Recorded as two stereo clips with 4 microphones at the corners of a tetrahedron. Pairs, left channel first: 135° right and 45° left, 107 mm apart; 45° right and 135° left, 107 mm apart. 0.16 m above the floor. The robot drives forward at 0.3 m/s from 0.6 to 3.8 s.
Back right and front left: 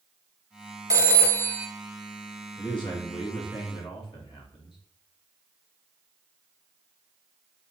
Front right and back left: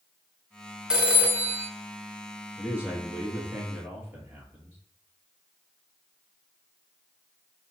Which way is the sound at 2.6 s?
155° right.